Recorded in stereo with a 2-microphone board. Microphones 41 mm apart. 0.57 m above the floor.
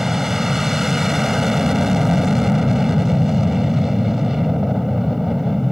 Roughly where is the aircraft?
Centre.